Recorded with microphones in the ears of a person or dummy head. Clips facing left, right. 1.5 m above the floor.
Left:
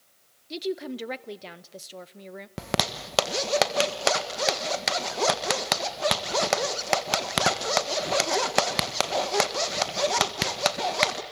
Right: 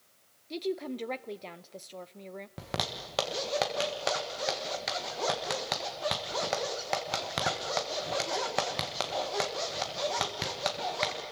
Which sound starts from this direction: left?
A zipper, at 2.6 s.